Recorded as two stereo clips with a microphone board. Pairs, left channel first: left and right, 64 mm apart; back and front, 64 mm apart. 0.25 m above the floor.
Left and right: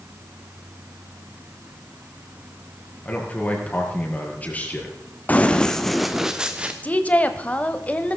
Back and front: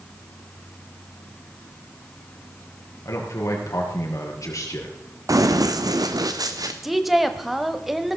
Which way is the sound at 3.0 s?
150° left.